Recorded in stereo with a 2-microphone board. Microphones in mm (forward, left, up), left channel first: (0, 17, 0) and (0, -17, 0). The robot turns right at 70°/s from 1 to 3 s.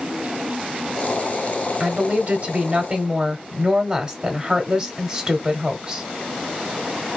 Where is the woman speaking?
125° right, 0.9 m; by 6.0 s 40° right, 0.9 m.